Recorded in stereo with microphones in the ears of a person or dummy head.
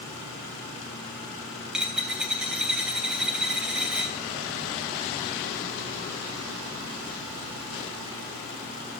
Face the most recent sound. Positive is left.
turn(degrees=-5)  # may be behind; listen again after turning